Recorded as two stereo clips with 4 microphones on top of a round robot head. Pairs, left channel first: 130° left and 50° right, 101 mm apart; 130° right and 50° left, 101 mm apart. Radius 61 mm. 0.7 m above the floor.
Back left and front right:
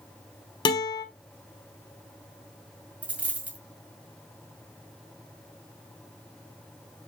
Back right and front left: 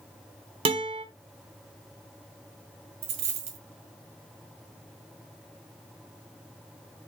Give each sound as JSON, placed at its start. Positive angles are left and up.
{"t": 0.7, "sound": "a guitar", "azimuth_deg": 85, "distance_m": 1.4}
{"t": 3.0, "sound": "a dropped coin", "azimuth_deg": 25, "distance_m": 1.8}